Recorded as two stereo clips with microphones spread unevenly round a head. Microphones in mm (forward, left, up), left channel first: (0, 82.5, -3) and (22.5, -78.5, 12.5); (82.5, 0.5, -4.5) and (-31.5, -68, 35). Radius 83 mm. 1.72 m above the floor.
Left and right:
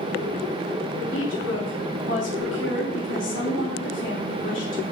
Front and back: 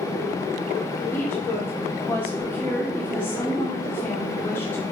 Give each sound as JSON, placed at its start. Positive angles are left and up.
{"t": 1.1, "sound": "a woman speaking", "azimuth_deg": 115, "distance_m": 3.0}